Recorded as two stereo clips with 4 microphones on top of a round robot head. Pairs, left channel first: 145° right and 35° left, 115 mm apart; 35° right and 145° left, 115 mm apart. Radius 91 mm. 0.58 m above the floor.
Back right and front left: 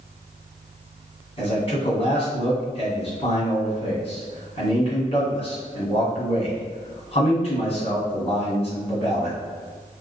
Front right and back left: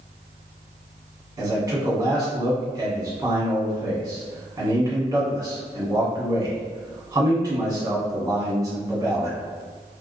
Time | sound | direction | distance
1.4 | a man speaking | 160° right | 1.7 m